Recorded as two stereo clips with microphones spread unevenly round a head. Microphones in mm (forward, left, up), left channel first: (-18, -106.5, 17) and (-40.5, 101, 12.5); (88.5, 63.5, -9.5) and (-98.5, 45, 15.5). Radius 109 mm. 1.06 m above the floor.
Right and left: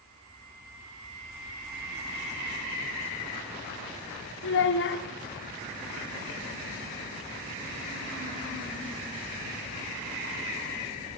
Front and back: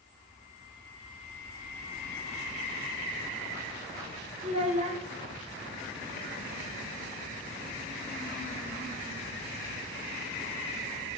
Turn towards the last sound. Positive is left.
turn(degrees=-115)